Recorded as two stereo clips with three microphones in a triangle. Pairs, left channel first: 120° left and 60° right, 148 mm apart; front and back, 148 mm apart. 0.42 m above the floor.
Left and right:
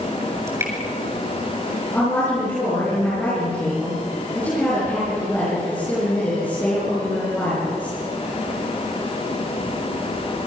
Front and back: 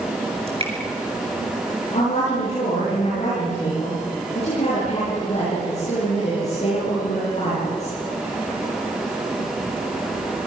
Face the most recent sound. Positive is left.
turn(degrees=45)